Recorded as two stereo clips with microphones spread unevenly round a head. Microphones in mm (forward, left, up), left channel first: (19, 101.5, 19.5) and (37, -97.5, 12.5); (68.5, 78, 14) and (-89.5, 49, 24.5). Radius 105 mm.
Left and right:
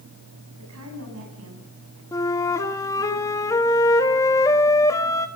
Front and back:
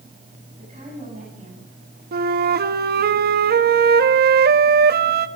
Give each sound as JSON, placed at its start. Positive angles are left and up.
{"t": 0.6, "sound": "a woman speaking", "azimuth_deg": -105, "distance_m": 9.5}
{"t": 2.1, "sound": "a flute", "azimuth_deg": 170, "distance_m": 1.3}